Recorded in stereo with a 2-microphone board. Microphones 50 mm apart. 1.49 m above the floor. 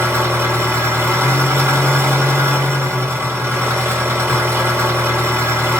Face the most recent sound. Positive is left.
turn(degrees=-60)  # may be behind; listen again after turning